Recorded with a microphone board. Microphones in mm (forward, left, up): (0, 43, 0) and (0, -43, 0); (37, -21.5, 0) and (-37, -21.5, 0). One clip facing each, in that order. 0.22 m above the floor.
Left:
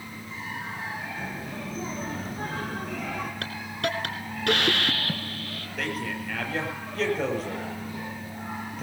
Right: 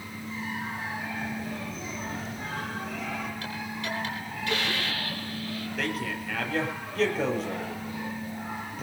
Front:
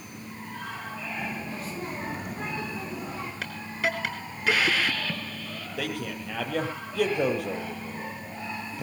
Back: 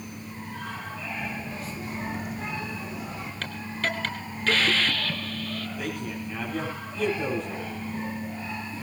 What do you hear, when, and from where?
1.2 s a child speaking: 40° left, 7.5 m; by 3.3 s 50° left, 6.5 m
3.4 s a hiss: 80° left, 2 m
5.8 s a man speaking: straight ahead, 7 m